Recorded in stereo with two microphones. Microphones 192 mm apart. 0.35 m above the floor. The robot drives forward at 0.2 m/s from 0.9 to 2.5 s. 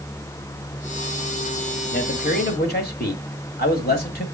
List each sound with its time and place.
1.9 s a man speaking: 55° left (ahead or behind), 1.8 m